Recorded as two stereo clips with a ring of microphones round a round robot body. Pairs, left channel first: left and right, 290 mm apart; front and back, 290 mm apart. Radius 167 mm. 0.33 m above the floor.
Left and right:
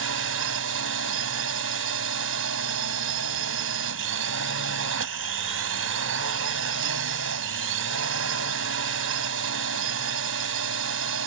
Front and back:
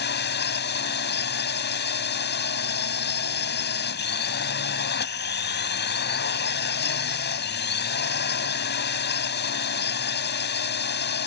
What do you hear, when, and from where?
0.0 s a drone: 50° right